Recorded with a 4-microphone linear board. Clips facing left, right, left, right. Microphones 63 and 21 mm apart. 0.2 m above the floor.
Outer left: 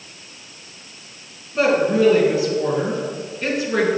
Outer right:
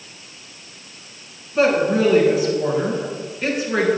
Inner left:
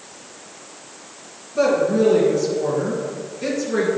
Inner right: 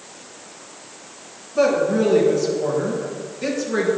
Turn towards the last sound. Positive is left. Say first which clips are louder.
# even, even
turn(degrees=-10)  # may be behind; listen again after turning